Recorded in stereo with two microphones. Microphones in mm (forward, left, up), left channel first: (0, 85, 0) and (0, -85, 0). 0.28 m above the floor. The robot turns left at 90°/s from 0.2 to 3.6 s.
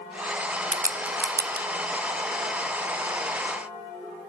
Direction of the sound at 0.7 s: 45° right (ahead or behind).